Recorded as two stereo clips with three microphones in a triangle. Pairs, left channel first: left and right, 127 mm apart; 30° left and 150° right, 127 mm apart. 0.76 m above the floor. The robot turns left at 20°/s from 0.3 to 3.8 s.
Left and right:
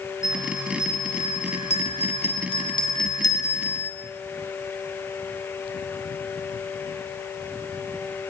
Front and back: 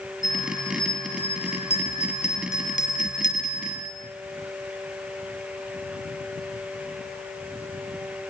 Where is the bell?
90° left, 6 m; by 3.9 s 20° left, 6 m.